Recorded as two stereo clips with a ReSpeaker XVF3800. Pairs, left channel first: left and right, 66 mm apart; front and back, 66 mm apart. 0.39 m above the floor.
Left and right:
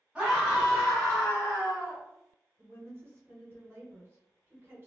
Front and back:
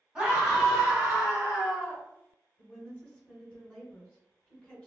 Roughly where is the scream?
Behind right.